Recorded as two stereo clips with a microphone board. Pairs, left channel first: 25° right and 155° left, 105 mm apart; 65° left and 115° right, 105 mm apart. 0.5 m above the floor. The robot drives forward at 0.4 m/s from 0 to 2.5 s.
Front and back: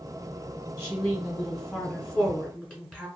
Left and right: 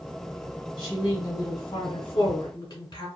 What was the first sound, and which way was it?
A woman speaking, 40° left.